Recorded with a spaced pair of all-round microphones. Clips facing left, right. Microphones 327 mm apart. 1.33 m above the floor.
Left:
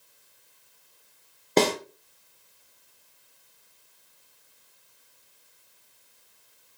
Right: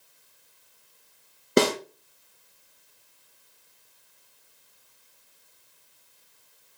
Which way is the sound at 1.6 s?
15° right (ahead or behind).